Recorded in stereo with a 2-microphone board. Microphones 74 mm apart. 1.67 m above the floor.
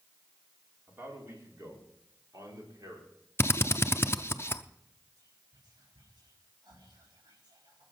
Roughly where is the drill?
Left.